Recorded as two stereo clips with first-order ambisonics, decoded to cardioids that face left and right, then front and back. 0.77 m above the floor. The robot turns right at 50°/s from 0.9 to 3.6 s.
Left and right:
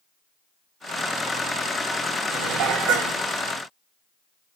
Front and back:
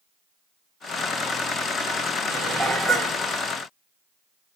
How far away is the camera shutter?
I don't hear a camera shutter.